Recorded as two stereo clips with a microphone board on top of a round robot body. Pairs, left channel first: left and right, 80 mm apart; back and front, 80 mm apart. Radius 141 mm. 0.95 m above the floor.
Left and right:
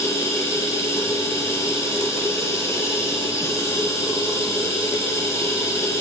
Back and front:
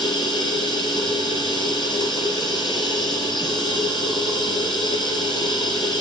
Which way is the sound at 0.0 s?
150° left.